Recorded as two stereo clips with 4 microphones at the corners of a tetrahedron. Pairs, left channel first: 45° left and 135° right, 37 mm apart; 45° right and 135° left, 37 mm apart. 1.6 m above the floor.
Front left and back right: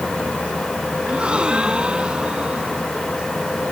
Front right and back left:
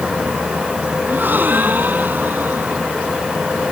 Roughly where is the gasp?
Behind.